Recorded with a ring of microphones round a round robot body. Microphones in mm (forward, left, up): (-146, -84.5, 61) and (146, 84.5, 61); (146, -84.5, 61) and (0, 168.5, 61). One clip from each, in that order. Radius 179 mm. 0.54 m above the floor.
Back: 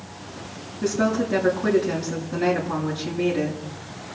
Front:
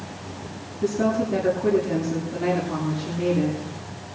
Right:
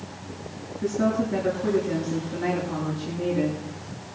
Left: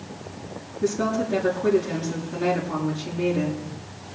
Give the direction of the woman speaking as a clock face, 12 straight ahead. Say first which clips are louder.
Even, left 1 dB; 6 o'clock.